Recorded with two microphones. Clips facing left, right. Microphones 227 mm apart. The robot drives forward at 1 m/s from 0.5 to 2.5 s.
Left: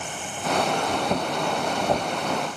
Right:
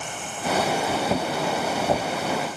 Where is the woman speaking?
I don't hear a woman speaking.